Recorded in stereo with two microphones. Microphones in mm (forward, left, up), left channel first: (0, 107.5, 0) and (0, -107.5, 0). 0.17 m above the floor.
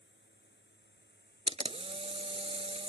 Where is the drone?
55° left (ahead or behind); by 2.9 s 45° left (ahead or behind).